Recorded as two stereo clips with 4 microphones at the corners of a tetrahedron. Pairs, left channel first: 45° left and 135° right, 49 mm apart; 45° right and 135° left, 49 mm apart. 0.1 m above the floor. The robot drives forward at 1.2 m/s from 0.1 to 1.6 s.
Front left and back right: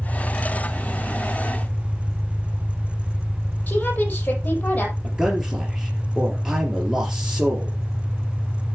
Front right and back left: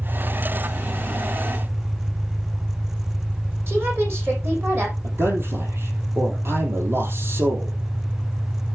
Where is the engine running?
80° left, 3.5 m; by 8.8 s 110° left, 3.5 m.